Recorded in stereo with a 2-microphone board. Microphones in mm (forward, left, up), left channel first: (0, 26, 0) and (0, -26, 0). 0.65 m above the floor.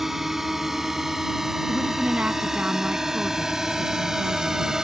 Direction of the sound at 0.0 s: 5° right (ahead or behind).